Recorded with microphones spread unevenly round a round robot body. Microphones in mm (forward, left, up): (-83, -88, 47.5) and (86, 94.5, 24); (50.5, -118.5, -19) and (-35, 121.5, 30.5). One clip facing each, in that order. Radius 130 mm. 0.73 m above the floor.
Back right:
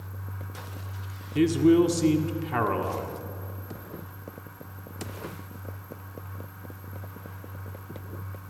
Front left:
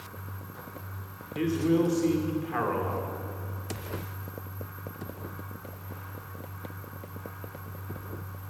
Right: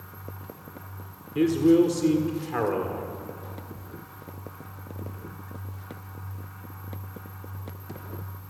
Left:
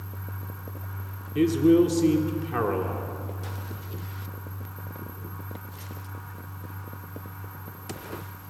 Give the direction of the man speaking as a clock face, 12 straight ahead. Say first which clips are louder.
Back right 6 dB, even; 6 o'clock.